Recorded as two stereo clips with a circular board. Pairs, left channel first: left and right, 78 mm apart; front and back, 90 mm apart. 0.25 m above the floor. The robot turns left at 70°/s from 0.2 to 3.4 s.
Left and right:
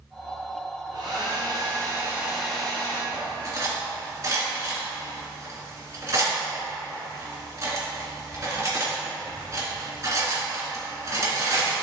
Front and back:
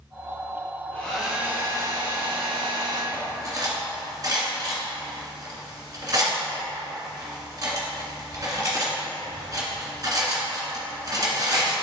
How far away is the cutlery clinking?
About 2 m.